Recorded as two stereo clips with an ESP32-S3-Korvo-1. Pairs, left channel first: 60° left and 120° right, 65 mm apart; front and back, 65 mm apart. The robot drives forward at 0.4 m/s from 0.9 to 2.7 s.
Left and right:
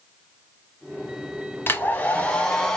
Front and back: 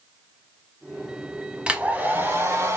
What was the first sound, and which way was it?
A hair dryer, 110° left.